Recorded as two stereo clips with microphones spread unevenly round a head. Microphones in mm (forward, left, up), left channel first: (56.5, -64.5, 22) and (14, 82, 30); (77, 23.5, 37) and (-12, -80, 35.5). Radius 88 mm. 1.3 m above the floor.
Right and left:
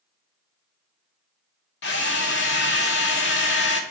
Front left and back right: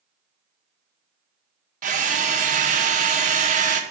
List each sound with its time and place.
1.8 s a drill: 100° right, 1.0 m